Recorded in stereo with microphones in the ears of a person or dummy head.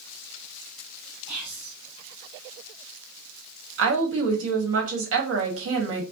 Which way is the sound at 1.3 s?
60° right (ahead or behind).